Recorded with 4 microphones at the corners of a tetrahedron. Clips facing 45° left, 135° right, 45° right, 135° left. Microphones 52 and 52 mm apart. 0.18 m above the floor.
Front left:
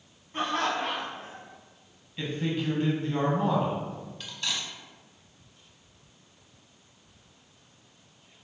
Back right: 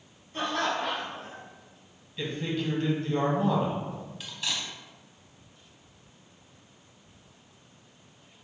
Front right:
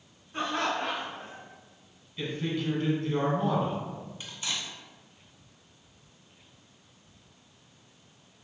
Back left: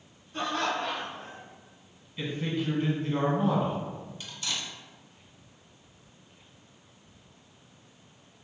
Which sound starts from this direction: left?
A man speaking, at 2.2 s.